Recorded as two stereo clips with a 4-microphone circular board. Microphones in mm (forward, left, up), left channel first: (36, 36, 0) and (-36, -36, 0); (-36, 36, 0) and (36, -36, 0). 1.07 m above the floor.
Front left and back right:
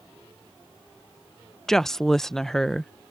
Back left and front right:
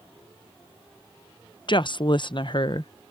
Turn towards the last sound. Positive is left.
turn(degrees=130)